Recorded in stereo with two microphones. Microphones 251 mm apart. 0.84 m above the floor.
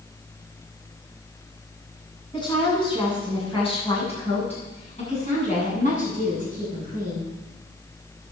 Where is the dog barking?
No dog barking in this recording.